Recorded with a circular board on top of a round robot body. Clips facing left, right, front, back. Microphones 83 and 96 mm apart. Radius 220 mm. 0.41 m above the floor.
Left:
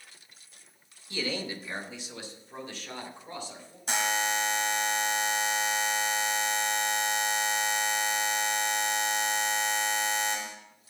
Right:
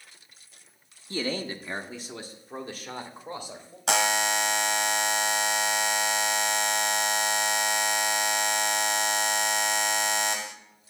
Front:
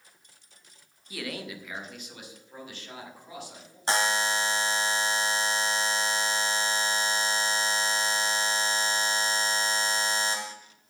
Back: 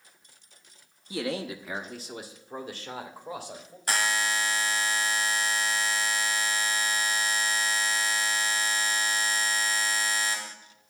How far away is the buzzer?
About 0.9 m.